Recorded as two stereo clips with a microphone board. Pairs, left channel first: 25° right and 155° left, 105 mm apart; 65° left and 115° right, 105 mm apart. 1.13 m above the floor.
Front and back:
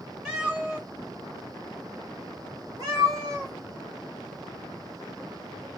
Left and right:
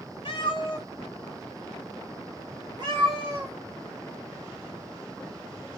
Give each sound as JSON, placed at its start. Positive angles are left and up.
{"t": 0.2, "sound": "a cat meowing", "azimuth_deg": 75, "distance_m": 1.0}